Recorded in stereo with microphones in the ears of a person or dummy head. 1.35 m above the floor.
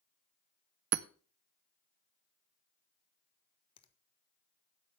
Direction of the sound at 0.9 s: 50° right (ahead or behind).